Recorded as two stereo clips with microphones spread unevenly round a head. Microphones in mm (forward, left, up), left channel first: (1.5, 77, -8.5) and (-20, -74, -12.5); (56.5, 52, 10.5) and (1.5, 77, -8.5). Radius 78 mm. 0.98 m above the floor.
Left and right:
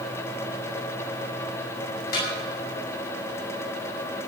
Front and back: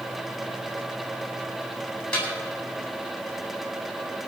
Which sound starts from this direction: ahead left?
A snare drum, at 2.1 s.